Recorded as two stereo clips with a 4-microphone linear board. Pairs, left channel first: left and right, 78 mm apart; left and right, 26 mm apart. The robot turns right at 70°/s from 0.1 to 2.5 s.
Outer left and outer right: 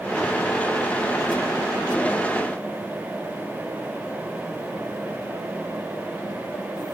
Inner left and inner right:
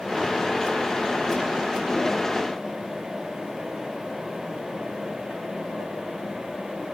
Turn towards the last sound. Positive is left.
No sound to turn to.